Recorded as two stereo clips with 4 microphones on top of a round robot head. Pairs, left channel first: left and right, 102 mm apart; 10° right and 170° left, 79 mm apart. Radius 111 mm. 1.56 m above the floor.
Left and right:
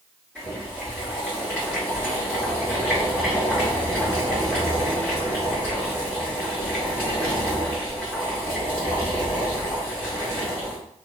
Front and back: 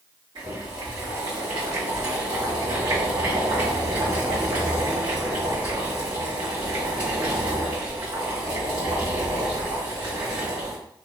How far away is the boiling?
About 1.6 m.